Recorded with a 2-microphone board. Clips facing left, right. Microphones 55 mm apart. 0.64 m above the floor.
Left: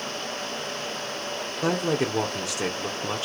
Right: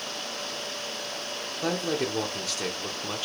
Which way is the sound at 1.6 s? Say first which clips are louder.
Left 3 dB; 15° left (ahead or behind).